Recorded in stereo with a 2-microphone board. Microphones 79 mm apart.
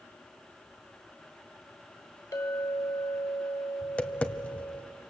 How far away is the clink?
About 2 m.